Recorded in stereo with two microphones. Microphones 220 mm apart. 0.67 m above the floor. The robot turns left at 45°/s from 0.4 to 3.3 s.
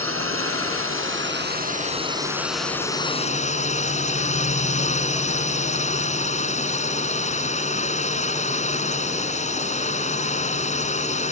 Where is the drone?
80° right; by 11.3 s 145° left.